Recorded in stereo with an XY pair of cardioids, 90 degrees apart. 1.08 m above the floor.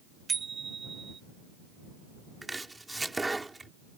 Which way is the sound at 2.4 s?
15° right.